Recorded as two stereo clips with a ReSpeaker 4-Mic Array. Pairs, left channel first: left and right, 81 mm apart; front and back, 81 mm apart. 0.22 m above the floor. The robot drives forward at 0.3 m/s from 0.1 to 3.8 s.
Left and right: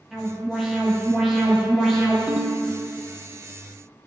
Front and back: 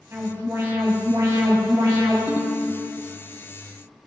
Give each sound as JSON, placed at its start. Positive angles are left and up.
{"t": 0.1, "sound": "an alarm", "azimuth_deg": -170, "distance_m": 2.0}
{"t": 2.3, "sound": "a ringtone", "azimuth_deg": -20, "distance_m": 0.6}